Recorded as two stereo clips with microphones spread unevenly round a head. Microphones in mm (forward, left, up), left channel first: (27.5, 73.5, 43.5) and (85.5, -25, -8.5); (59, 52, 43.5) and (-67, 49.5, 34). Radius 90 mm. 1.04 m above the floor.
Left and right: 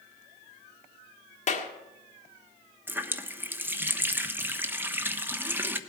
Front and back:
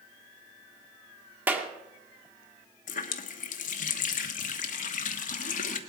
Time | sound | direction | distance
1.5 | a clap | 105° left | 1.7 m
2.9 | a running tap | 15° left | 1.1 m